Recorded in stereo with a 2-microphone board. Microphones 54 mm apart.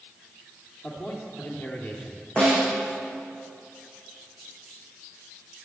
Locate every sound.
0.8 s a man speaking: 45° left (ahead or behind), 2.5 m
2.4 s a snare drum: 25° left (ahead or behind), 5.5 m